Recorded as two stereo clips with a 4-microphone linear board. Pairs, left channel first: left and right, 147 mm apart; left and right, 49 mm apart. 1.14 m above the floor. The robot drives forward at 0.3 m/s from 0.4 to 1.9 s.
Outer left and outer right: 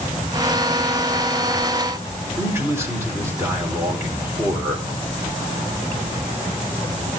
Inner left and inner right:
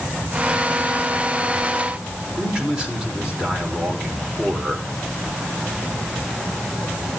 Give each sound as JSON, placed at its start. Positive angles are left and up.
{"t": 2.4, "sound": "a man speaking", "side_deg": -15, "distance_m": 4.5}